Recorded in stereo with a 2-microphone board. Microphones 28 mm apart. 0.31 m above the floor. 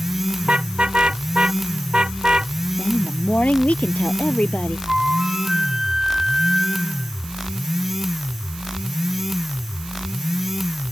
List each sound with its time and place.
0.4 s a car horn: 35° right (ahead or behind); by 2.5 s 30° right (ahead or behind)
2.8 s a woman speaking: 60° left (ahead or behind)
4.9 s a flute: 25° right (ahead or behind)